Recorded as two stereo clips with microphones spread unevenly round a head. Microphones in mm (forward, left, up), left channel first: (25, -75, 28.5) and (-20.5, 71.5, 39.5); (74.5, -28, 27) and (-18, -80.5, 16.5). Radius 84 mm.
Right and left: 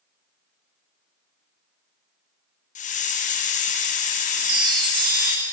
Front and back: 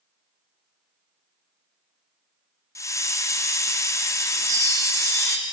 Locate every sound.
2.8 s a hiss: 35° right, 0.7 m
4.4 s a chime: 170° left, 1.4 m